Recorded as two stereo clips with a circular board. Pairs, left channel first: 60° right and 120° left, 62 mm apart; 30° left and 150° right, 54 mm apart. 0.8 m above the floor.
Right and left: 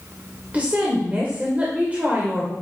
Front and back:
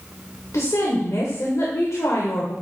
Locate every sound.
0.5 s a woman speaking: 55° left, 2.5 m